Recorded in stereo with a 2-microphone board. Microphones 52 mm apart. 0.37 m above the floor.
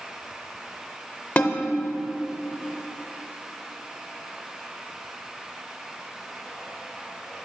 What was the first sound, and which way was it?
A snare drum, 30° left (ahead or behind).